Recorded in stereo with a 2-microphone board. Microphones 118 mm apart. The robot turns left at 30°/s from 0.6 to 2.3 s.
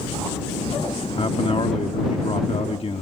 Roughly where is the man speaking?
Left.